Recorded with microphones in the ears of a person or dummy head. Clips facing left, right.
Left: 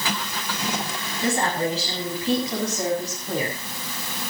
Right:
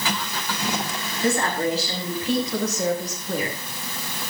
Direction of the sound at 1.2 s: 20° left (ahead or behind).